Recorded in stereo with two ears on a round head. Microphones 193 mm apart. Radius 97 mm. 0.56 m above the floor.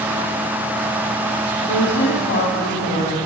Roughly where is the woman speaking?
Left.